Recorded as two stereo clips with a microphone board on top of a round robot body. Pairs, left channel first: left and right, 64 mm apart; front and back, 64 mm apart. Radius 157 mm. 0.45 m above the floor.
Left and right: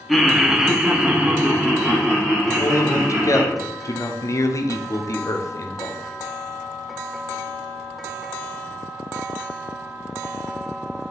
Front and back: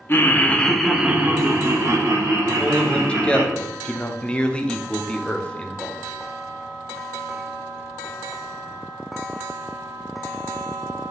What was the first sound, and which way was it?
Laughter, straight ahead.